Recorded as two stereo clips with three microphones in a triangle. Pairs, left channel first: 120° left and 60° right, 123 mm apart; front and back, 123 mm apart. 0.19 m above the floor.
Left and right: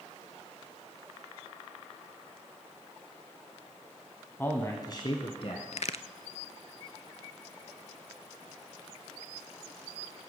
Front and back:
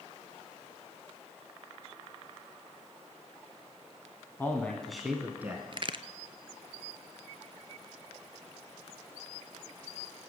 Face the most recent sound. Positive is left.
turn(degrees=140)